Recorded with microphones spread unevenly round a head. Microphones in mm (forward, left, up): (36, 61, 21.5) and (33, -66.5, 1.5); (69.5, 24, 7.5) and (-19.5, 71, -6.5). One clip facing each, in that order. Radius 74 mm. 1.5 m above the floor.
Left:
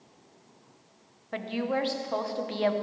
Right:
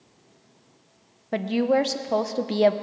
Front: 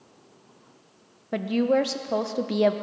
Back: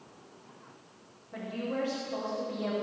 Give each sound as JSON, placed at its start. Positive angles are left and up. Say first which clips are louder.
{"t": 1.3, "sound": "a woman speaking", "louder": "right 8 dB, front 12 dB", "azimuth_deg": -45, "distance_m": 0.9}